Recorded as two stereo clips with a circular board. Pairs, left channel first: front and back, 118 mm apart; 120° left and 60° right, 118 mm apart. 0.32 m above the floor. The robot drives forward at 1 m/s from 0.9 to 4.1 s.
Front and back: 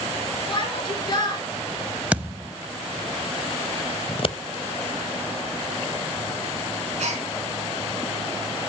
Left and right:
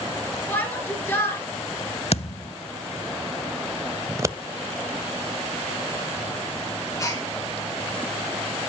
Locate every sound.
0.5 s a shout: 45° left, 4 m; by 1.4 s 55° left, 3.5 m
2.1 s a thud: 100° left, 0.7 m; by 2.5 s 135° left, 0.9 m
4.1 s scissors: 5° right, 0.6 m
7.0 s a gasp: straight behind, 3.5 m